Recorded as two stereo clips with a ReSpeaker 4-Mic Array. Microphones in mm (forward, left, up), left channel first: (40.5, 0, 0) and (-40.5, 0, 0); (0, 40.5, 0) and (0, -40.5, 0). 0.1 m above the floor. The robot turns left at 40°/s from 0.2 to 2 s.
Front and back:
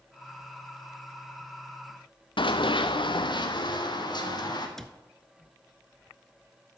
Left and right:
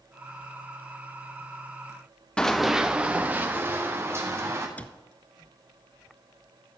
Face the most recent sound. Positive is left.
turn(degrees=75)